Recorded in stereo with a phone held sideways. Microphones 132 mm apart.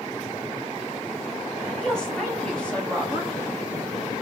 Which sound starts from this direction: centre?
A woman speaking, at 1.8 s.